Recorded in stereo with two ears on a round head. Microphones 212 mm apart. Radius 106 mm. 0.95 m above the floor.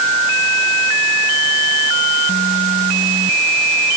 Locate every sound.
Only background noise.